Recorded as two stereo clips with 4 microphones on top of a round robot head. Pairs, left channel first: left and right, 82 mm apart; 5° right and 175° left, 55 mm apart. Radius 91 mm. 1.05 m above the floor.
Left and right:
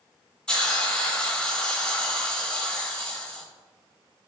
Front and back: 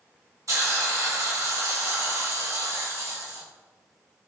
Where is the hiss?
170° left, 4 m.